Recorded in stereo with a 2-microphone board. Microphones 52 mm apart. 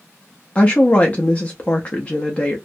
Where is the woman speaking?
30° left (ahead or behind), 0.5 m.